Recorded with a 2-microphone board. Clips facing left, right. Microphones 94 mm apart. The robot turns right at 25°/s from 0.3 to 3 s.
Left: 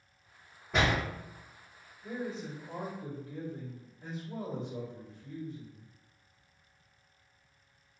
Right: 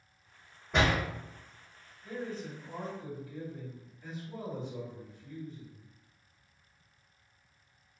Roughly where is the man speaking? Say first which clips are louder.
Left 1 dB; left.